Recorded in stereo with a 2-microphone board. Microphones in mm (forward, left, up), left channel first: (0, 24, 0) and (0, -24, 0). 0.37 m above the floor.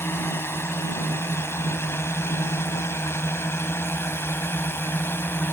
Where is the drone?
55° left (ahead or behind); by 5.5 s 50° left (ahead or behind).